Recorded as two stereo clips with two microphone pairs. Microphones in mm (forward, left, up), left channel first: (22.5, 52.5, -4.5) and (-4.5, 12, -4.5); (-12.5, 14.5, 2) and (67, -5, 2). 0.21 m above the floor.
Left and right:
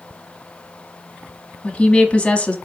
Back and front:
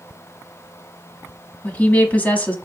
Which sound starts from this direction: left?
A woman speaking, at 1.6 s.